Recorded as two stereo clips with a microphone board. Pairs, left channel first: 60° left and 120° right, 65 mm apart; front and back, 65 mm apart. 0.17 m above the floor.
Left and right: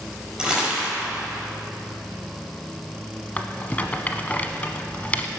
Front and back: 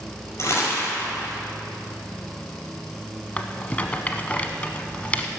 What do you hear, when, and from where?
0.4 s crumpling: 40° right, 5 m
3.4 s a rattle: 35° left, 0.8 m